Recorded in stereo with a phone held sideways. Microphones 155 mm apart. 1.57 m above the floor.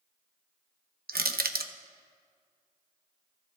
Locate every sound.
1.1 s crushing: 80° right, 0.7 m